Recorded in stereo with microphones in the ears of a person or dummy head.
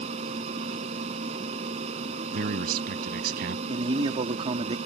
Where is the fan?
35° right (ahead or behind).